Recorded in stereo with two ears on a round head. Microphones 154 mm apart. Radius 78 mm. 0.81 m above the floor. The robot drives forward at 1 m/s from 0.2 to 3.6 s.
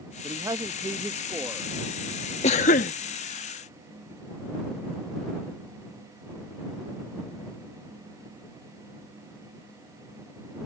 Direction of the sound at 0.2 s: 20° right (ahead or behind).